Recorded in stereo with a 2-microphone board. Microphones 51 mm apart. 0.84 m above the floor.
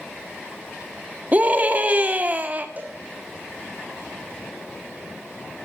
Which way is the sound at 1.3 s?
30° right (ahead or behind).